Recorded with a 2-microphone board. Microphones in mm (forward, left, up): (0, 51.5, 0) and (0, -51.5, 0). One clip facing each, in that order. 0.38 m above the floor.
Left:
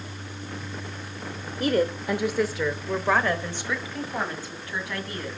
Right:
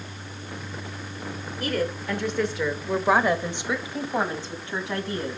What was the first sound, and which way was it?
A woman speaking, 30° left (ahead or behind).